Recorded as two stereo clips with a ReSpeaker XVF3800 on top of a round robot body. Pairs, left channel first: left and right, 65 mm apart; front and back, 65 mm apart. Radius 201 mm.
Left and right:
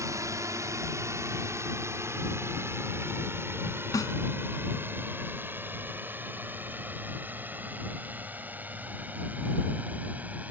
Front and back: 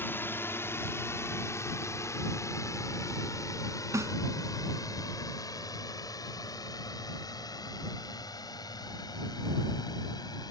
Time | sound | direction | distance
0.0 | a drone | 55° right | ?
3.9 | a snare drum | 130° left | ?